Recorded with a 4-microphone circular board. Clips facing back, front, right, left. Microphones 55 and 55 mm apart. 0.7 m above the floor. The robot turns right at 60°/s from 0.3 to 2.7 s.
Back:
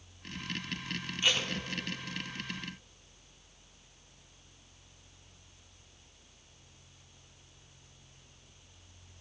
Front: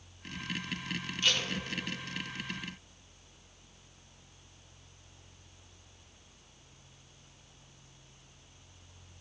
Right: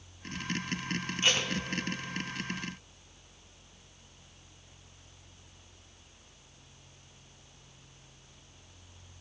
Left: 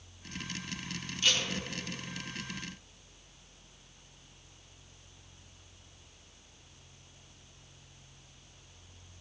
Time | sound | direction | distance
1.2 | tape being pulled | 120° right | 0.7 m